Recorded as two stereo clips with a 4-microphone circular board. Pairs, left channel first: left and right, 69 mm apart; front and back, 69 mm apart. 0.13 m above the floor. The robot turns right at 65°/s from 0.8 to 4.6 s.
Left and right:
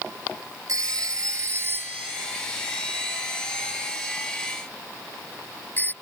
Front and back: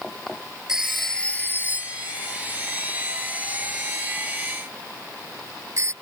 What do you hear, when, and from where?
0.7 s a phone ringing: 100° right; by 5.9 s 150° left